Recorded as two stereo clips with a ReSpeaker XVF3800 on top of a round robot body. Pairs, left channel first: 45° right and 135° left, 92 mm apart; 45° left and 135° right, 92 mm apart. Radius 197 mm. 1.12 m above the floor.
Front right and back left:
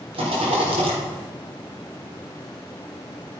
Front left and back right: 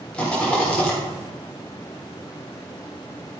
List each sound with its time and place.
0.1 s a rattle: 125° left, 4 m